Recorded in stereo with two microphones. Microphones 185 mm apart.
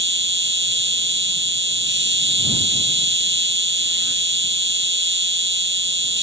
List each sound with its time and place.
0.0 s an insect: 85° right